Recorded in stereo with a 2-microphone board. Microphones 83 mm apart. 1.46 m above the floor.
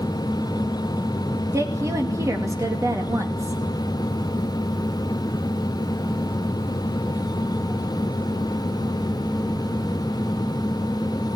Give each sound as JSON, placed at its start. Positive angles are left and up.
{"t": 1.5, "sound": "a woman speaking", "side_deg": -35, "distance_m": 2.0}